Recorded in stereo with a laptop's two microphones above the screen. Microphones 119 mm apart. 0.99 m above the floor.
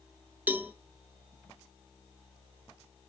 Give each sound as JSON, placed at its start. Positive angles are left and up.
{"t": 0.5, "sound": "a cowbell", "side_deg": -15, "distance_m": 0.5}